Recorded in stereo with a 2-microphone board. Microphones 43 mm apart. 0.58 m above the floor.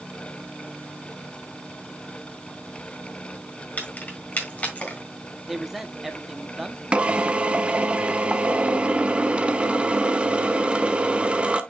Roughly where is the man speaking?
Centre.